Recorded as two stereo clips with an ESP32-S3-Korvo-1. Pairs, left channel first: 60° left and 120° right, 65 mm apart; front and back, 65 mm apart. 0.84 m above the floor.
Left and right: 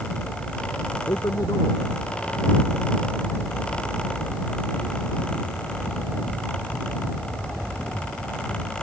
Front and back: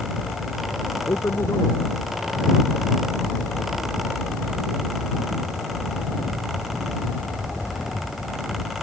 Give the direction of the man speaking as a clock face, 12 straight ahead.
11 o'clock.